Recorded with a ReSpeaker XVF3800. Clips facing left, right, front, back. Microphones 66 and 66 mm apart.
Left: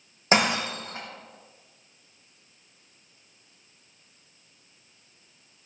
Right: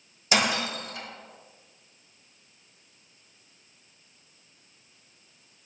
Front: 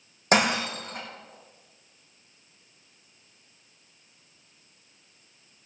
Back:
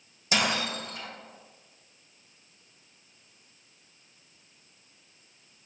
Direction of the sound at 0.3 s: 35° left.